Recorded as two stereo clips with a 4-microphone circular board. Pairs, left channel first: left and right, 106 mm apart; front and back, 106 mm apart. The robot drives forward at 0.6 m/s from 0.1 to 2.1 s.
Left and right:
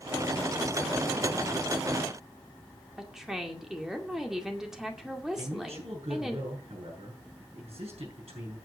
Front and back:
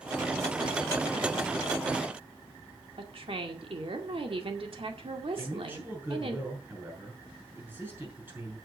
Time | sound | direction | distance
3.0 | a woman speaking | 175° right | 2.0 m
5.4 | a man speaking | 110° right | 7 m